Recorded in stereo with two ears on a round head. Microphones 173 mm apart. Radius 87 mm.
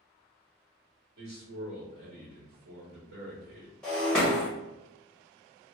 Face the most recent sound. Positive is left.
turn(degrees=5)  # may be behind; listen again after turning